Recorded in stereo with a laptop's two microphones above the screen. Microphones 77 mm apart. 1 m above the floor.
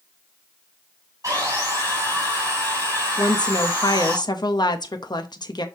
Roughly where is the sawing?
Right.